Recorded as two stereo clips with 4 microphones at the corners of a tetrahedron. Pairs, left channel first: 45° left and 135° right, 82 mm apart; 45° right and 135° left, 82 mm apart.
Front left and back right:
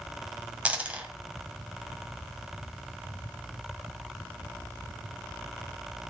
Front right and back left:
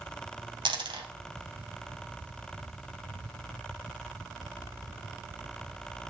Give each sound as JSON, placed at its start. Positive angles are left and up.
{"t": 0.7, "sound": "a dropped coin", "azimuth_deg": 150, "distance_m": 2.0}